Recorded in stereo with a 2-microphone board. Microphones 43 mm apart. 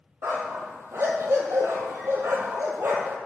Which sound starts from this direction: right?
A dog barking, at 0.2 s.